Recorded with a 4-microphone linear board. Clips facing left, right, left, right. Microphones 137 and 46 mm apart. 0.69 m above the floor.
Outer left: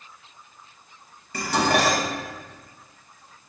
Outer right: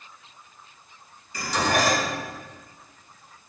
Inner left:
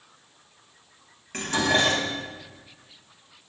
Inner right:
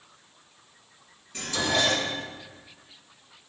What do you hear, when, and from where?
1.3 s dishes clattering: 65° left (ahead or behind), 3.5 m